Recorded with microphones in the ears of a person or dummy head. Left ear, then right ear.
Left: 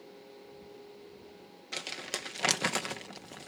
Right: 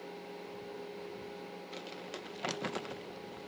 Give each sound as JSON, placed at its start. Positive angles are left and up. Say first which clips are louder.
{"t": 1.7, "sound": "crumpling", "louder": "left 10 dB", "side_deg": 50}